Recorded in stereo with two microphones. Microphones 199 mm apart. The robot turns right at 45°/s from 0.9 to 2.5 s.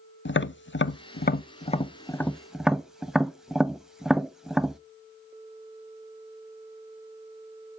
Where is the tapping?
65° left (ahead or behind), 0.5 m; by 4.8 s centre (ahead or behind), 0.5 m.